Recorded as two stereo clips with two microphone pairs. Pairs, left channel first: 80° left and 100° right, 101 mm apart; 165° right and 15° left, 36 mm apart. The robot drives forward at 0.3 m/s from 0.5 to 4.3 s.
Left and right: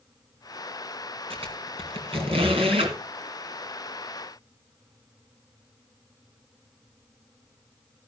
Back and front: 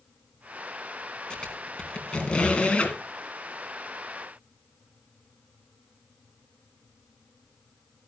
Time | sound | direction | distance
1.3 | a squeak | 100° right | 2.5 m